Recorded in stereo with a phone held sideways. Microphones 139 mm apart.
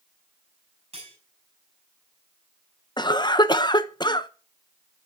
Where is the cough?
30° left (ahead or behind), 1.0 m.